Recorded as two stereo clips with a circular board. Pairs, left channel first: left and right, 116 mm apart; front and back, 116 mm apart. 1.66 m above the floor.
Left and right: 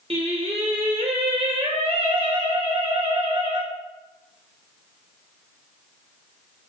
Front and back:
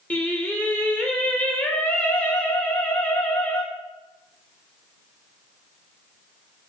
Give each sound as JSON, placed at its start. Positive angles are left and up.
{"t": 0.1, "sound": "singing", "azimuth_deg": -75, "distance_m": 2.0}